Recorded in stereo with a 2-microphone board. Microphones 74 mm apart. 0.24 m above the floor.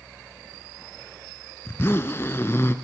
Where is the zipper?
35° left (ahead or behind), 0.6 m.